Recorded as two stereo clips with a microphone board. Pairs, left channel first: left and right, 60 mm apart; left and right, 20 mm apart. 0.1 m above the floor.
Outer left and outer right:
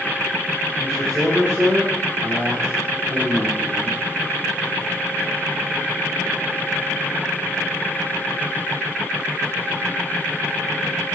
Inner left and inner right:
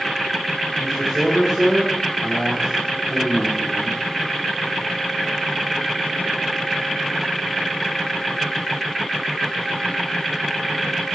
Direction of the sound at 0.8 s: 10° right (ahead or behind).